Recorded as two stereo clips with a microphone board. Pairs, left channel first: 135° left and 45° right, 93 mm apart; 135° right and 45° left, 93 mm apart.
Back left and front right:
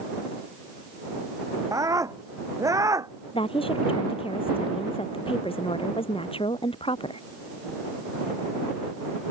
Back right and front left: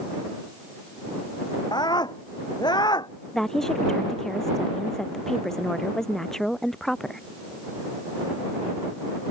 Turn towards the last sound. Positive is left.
turn(degrees=140)